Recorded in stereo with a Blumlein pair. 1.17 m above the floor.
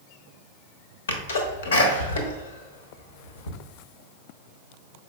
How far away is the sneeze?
About 0.9 m.